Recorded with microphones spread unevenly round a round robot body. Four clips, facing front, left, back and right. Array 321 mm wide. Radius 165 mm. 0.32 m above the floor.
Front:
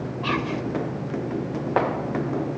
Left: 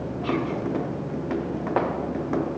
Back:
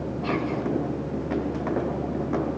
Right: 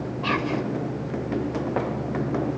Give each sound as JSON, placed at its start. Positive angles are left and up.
{"t": 0.2, "sound": "whispering", "azimuth_deg": -55, "distance_m": 1.9}